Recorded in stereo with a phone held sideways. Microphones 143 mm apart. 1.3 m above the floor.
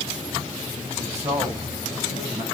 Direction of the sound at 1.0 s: 45° right (ahead or behind).